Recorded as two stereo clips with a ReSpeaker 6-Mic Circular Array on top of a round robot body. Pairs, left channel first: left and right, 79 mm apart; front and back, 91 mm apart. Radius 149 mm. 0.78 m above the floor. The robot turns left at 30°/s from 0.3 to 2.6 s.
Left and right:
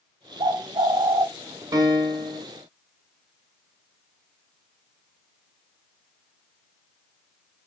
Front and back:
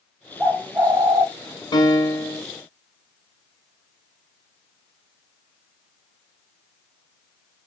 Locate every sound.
0.4 s a bird: 110° right, 0.6 m; by 1.3 s 135° right, 0.6 m
1.7 s a piano: 45° right, 0.9 m; by 2.4 s 65° right, 0.9 m